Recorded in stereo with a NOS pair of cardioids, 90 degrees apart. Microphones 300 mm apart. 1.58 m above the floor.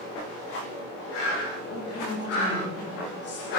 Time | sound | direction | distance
1.6 | a woman speaking | 55° left | 3.5 m